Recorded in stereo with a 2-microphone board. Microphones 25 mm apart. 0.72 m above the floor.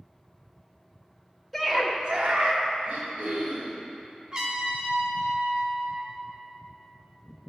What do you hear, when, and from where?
1.5 s a scream: 5° right (ahead or behind), 1.2 m; by 2.6 s 60° right (ahead or behind), 1.9 m
2.9 s throat clearing: 65° right (ahead or behind), 2.5 m
4.3 s a trumpet: 35° right (ahead or behind), 0.9 m